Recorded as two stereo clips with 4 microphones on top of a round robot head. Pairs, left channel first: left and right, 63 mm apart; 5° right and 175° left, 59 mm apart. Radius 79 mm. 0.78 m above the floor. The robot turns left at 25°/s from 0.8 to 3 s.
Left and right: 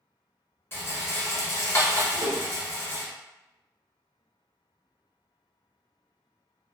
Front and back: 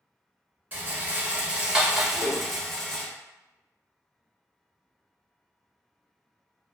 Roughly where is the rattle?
Behind left.